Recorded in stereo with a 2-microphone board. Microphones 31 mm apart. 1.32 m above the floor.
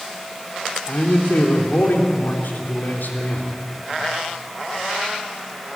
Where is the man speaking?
90° left, 3 m.